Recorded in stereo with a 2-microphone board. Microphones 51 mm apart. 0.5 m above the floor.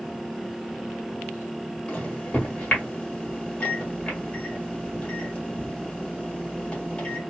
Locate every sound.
1.9 s a microwave: 25° left (ahead or behind), 1.6 m